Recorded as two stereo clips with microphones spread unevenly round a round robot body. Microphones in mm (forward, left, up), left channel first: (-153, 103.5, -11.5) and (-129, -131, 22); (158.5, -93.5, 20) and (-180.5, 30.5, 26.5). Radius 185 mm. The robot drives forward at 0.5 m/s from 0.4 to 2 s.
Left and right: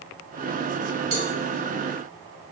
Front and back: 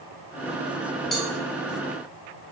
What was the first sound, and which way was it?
A cowbell, 110° right.